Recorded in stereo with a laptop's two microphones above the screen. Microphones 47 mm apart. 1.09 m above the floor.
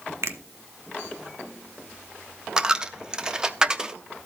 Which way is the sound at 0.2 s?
70° right (ahead or behind).